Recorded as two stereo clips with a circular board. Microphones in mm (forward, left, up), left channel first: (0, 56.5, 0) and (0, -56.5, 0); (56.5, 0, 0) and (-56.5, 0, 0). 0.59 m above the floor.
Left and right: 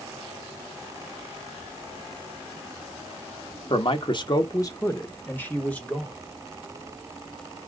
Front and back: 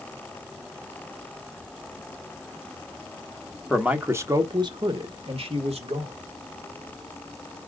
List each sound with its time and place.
3.7 s a man speaking: 95° left, 1.1 m; by 6.2 s 170° left, 2 m